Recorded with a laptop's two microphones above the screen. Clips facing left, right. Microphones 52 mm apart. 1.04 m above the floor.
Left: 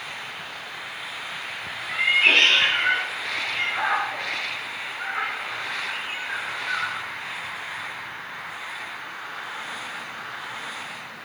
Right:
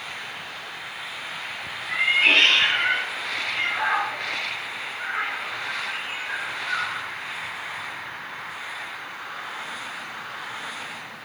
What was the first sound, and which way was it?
A cat meowing, centre (ahead or behind).